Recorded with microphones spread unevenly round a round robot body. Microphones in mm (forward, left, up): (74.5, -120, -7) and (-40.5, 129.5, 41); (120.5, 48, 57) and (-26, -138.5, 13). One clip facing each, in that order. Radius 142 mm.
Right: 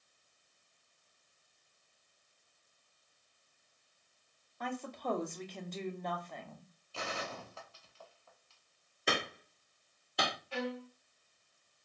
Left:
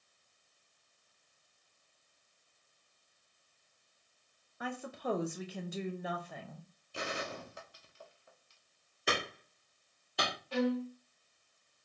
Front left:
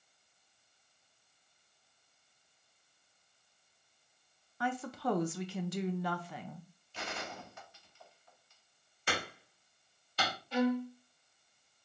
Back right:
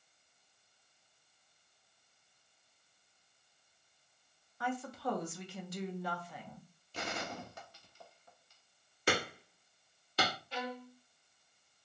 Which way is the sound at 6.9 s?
170° left.